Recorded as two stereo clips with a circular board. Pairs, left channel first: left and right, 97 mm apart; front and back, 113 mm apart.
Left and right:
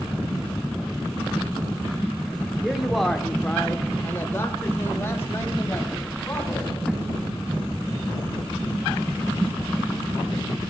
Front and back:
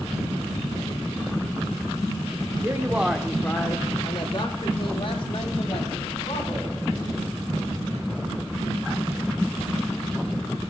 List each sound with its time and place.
2.6 s a man speaking: 170° right, 0.8 m; by 6.8 s 25° left, 3 m